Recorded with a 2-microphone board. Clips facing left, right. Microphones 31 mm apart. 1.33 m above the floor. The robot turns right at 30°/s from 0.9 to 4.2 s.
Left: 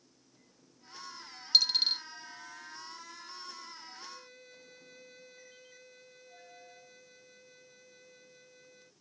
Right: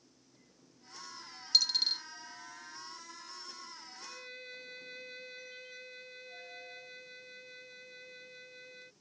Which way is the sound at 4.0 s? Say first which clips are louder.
Right 2 dB; 60° right (ahead or behind).